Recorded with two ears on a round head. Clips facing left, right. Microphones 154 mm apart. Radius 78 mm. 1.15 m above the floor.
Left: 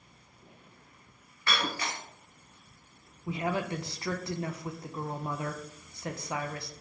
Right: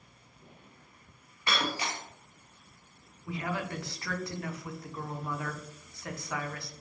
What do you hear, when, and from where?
1.5 s breaking glass: 15° right (ahead or behind), 0.7 m
3.3 s a woman speaking: 20° left (ahead or behind), 0.5 m